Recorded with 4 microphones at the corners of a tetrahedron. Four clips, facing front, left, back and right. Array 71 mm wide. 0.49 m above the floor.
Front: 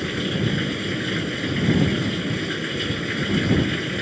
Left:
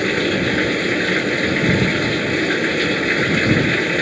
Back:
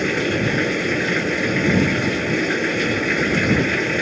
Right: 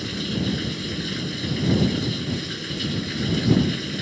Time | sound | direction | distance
0.0 | running water | 120° left | ?